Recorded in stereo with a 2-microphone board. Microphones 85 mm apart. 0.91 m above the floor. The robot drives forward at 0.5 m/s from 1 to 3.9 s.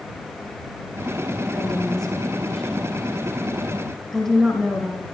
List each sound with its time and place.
1.5 s a woman speaking: 5° left (ahead or behind), 3 m